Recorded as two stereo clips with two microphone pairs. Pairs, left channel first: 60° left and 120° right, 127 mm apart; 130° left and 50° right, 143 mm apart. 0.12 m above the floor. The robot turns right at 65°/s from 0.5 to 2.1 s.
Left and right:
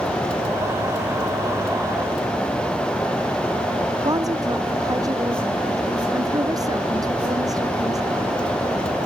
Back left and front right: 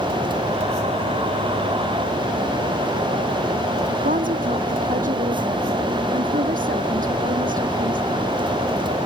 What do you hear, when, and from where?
4.0 s a woman speaking: 60° right